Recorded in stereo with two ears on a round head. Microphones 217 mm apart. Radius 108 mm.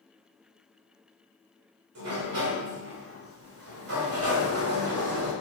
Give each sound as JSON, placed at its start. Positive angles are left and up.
{"t": 1.9, "sound": "a sliding door", "side_deg": -65, "distance_m": 1.8}